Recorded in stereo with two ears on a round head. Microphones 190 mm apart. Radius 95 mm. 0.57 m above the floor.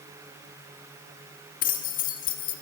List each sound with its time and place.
1.6 s keys jangling: 40° left (ahead or behind), 1.0 m